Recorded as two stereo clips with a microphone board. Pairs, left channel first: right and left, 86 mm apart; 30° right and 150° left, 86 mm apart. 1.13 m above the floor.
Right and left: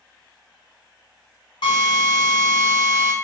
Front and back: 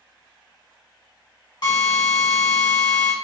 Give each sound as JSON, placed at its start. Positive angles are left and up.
{"t": 1.6, "sound": "a drill", "azimuth_deg": -65, "distance_m": 1.4}